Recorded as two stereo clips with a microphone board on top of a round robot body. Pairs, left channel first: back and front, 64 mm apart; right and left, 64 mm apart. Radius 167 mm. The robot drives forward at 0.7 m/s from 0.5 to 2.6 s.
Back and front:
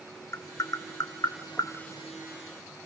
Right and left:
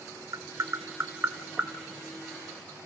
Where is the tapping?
130° left, 0.8 m; by 1.7 s 155° left, 1.5 m.